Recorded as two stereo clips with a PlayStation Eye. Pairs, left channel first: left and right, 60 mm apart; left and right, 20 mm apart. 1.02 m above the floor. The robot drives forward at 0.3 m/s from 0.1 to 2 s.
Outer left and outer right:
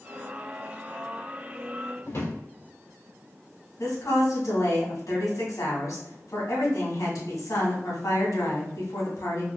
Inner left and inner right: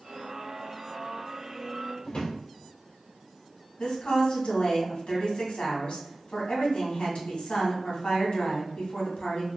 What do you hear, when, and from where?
2.0 s a drawer: 55° left (ahead or behind), 1.8 m
3.8 s a woman speaking: 75° left (ahead or behind), 1.6 m